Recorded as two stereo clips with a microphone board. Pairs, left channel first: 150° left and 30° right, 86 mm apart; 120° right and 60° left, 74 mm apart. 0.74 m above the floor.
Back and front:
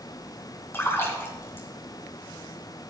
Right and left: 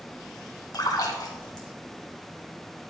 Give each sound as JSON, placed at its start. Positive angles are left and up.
{"t": 0.7, "sound": "a splash", "azimuth_deg": -150, "distance_m": 2.5}